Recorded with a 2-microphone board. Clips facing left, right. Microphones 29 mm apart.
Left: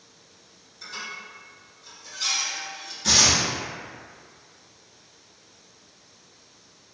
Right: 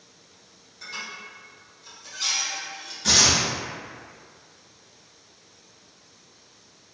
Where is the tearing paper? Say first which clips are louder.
Even; centre (ahead or behind), 1.1 m.